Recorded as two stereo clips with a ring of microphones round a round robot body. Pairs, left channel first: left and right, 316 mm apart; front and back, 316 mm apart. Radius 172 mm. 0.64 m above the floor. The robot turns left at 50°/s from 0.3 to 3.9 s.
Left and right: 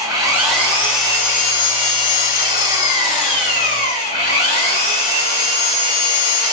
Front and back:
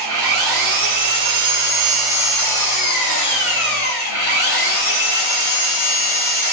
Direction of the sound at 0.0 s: 170° right.